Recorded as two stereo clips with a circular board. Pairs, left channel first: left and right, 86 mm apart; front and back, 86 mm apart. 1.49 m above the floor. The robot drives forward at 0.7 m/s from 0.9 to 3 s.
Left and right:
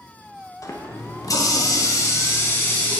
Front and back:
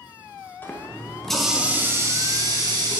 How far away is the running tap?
About 0.8 m.